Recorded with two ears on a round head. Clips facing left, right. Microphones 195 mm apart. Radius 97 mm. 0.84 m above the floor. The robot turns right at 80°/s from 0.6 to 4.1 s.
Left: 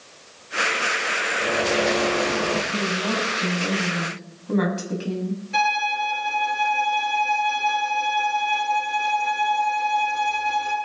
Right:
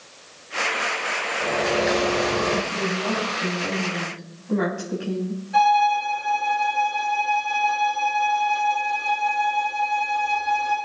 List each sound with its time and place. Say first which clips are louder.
1.4 s a bird: even; 155° left, 3.5 m; by 2.6 s 105° right, 3.5 m
2.7 s a woman speaking: even; 60° right, 5.5 m; by 5.4 s 50° left, 5.5 m
5.5 s a violin: right 10 dB; 40° left (ahead or behind), 5.5 m